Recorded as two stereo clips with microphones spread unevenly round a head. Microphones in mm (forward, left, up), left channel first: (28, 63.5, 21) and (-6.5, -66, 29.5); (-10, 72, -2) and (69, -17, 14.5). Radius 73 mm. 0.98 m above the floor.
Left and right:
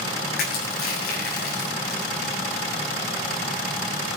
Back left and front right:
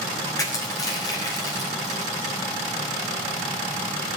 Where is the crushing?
70° left, 7 m.